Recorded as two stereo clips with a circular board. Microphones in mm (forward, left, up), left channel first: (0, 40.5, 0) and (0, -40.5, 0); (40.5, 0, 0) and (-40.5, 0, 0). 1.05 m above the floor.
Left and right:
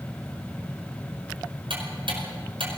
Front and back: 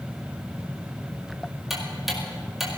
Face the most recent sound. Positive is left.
turn(degrees=-95)